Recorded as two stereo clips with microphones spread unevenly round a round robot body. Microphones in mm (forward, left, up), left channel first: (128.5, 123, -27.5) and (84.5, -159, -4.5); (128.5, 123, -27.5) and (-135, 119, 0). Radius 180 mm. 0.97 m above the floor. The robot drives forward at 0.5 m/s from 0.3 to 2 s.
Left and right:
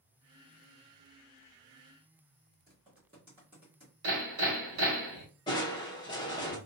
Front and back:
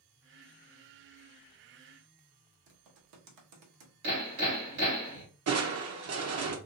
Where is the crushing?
150° left, 0.7 m.